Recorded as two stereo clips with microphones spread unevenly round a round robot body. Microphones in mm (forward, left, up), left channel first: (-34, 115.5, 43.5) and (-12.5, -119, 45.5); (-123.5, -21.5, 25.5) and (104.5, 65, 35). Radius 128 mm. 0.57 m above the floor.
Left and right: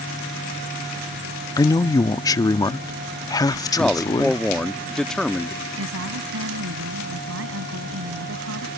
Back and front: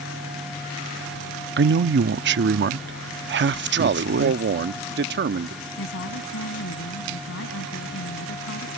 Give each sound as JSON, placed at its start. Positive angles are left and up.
{"t": 1.6, "sound": "a man speaking", "azimuth_deg": 30}
{"t": 3.8, "sound": "a man speaking", "azimuth_deg": 10}
{"t": 5.8, "sound": "a woman speaking", "azimuth_deg": -115}